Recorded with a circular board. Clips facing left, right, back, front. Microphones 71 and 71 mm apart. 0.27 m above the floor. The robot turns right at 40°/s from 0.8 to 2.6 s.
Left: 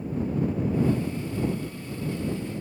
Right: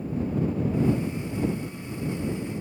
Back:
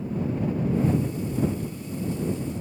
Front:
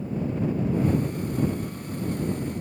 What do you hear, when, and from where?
Only background noise.